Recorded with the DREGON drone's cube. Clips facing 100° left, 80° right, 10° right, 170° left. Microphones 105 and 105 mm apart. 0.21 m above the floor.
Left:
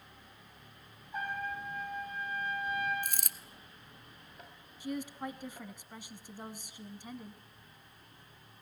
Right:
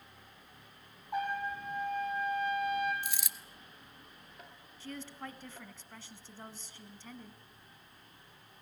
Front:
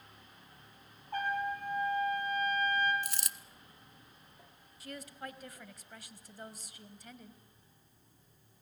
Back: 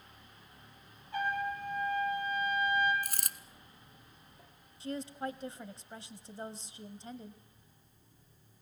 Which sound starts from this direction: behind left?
A dropped coin, at 3.0 s.